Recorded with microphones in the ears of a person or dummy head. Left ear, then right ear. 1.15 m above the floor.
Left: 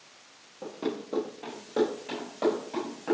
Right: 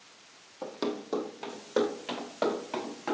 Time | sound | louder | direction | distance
0.6 | running footsteps | even | 55° right (ahead or behind) | 1.9 m